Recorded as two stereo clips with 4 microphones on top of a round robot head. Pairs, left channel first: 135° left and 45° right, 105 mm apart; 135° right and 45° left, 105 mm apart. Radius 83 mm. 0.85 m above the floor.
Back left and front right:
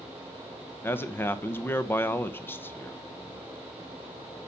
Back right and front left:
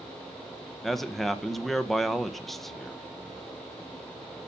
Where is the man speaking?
140° left, 0.9 m.